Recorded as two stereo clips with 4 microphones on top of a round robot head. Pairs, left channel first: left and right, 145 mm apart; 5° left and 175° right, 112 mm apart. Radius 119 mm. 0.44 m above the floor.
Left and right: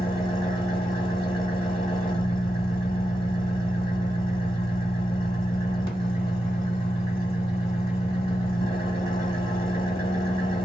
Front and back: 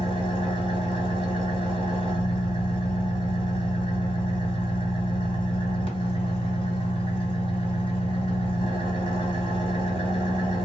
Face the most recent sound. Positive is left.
turn(degrees=35)